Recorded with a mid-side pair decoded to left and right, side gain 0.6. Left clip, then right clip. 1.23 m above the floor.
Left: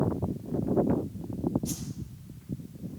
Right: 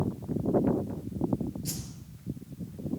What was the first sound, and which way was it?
A whoosh, 50° right.